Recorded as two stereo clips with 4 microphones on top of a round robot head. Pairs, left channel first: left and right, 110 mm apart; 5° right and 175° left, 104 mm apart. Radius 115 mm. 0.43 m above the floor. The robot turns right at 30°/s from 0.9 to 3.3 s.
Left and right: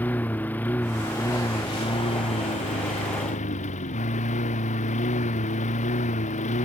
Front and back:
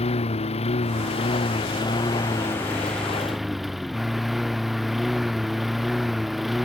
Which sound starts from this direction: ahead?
A lawn mower, at 0.0 s.